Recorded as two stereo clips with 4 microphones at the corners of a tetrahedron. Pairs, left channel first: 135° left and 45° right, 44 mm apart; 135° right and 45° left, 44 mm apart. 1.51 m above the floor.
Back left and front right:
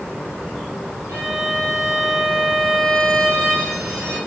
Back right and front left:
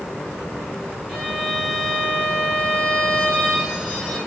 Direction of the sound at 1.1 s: 45° right.